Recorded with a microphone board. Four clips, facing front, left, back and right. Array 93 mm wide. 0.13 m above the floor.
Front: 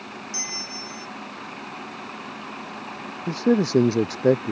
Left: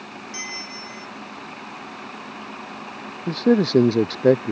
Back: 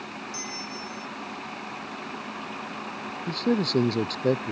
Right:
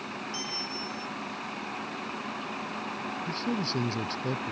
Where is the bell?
70° left.